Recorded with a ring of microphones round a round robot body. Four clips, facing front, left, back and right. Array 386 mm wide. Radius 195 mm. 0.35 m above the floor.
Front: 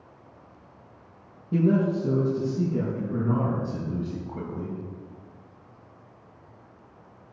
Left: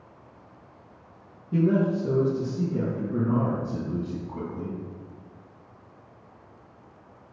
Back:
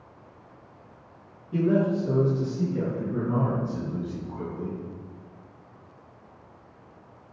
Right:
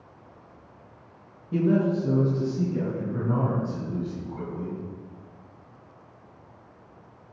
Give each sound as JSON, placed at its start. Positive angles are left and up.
{"t": 1.5, "sound": "a man speaking", "azimuth_deg": -20, "distance_m": 6.5}